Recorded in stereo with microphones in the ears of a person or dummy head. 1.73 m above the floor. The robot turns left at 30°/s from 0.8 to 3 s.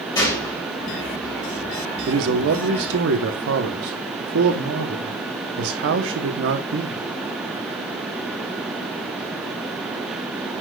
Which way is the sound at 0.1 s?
10° left (ahead or behind).